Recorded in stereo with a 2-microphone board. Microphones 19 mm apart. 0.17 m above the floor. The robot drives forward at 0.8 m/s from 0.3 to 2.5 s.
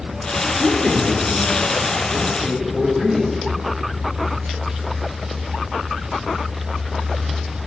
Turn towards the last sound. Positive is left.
turn(degrees=30)  # may be behind; listen again after turning